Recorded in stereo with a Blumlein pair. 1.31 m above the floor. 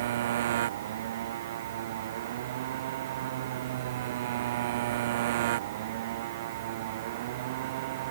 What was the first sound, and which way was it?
A motorcycle, 60° right.